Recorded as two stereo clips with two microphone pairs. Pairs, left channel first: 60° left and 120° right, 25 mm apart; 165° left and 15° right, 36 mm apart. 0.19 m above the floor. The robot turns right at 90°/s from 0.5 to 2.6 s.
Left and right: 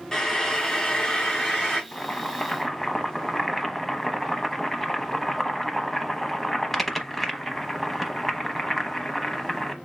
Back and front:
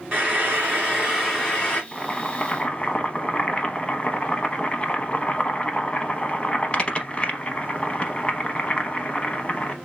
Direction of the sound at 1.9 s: 85° left.